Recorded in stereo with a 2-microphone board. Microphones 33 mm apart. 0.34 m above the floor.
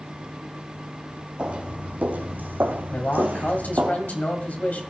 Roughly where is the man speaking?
Left.